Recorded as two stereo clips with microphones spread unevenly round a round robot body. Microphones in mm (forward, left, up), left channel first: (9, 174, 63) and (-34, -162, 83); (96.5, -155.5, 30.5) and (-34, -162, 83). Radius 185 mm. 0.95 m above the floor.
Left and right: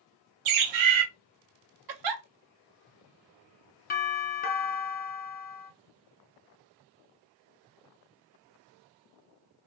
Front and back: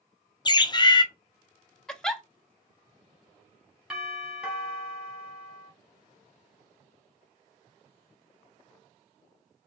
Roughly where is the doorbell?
Ahead left.